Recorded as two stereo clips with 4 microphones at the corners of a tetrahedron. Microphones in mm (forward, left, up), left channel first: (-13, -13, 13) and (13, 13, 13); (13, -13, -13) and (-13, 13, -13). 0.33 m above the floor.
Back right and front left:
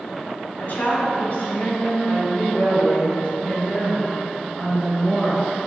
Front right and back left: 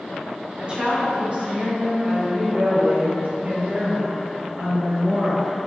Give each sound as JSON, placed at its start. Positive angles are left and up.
{"t": 0.6, "sound": "a woman speaking", "azimuth_deg": -170, "distance_m": 1.9}